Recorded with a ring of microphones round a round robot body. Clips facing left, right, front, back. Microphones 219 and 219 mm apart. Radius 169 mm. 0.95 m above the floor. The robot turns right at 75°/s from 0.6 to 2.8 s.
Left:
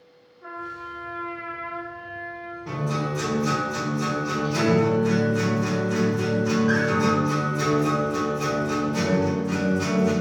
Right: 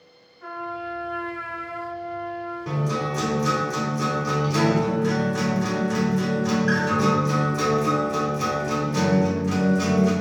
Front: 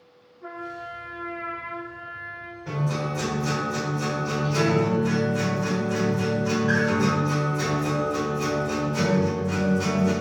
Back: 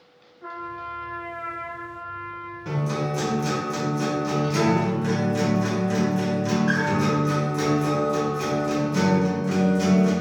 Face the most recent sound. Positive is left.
turn(degrees=-145)